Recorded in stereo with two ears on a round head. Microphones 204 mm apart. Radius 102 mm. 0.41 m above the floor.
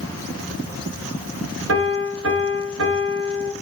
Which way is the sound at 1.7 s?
60° right (ahead or behind).